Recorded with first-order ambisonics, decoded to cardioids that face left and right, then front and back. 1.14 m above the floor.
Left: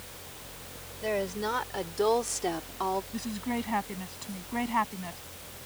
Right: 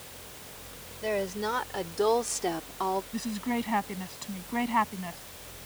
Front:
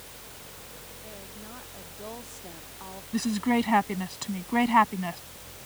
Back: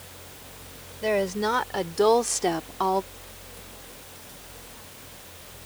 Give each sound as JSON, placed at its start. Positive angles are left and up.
{"t": 1.0, "sound": "a woman speaking", "azimuth_deg": 180}
{"t": 3.1, "sound": "a woman speaking", "azimuth_deg": -5}